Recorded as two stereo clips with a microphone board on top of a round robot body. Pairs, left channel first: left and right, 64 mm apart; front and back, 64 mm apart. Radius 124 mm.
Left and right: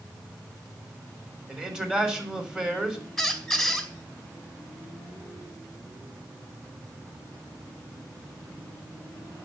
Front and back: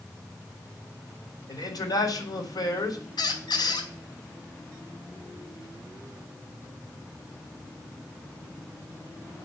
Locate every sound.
1.5 s a man speaking: 15° right, 3.5 m
3.2 s a squeak: straight ahead, 2.5 m